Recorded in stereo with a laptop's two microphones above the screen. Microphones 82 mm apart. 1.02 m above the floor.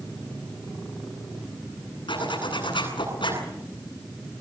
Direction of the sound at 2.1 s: 75° left (ahead or behind).